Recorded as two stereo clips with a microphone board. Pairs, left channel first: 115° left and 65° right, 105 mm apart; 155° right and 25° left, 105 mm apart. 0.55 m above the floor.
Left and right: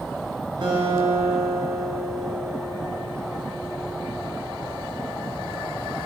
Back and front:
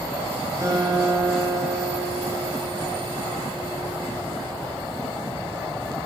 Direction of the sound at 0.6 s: 30° right.